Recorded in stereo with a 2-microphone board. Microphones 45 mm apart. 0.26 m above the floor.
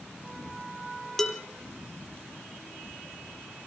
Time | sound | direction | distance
1.2 | dishes clattering | 5° left (ahead or behind) | 4.5 m